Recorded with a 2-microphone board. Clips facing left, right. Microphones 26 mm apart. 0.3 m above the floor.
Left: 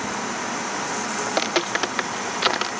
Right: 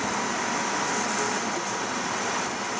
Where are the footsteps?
85° left.